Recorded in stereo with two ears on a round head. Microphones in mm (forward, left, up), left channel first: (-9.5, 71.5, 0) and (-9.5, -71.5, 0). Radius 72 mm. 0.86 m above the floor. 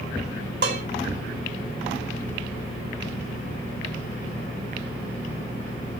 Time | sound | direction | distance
0.6 | dishes clattering | 80° right | 2.5 m